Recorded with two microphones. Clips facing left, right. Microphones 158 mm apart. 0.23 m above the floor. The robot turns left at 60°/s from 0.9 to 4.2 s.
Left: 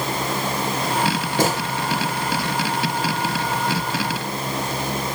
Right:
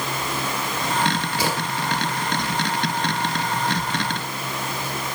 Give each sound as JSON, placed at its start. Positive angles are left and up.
{"t": 1.4, "sound": "a gunshot", "side_deg": 50, "distance_m": 2.5}